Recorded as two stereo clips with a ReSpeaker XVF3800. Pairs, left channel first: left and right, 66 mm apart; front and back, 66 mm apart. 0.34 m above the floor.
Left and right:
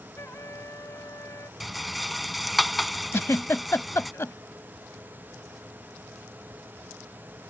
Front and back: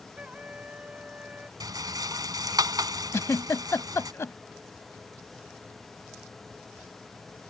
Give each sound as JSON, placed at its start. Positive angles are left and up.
{"t": 0.2, "sound": "a trumpet", "azimuth_deg": 115}
{"t": 1.6, "sound": "a rattle", "azimuth_deg": 180}
{"t": 3.1, "sound": "a giggle", "azimuth_deg": 45}